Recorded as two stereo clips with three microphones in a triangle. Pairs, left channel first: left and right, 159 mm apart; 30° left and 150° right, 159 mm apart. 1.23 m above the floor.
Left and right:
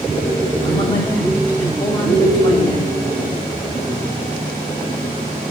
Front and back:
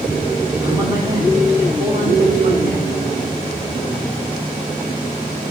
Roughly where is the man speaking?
Behind left.